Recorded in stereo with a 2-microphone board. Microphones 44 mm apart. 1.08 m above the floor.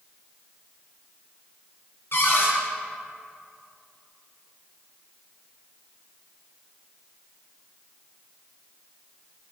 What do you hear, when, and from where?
2.1 s a cupboard door: 60° left (ahead or behind), 4 m